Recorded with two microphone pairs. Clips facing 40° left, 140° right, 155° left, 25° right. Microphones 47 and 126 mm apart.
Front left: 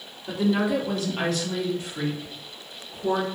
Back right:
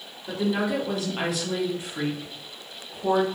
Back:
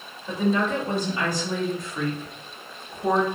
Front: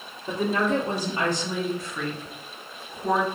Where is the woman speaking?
40° right, 1.2 m; by 3.3 s 170° left, 1.1 m.